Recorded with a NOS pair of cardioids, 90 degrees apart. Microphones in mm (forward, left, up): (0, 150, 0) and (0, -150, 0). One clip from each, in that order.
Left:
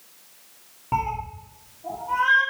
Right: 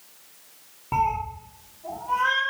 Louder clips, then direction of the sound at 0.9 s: Right 2 dB; 5° left.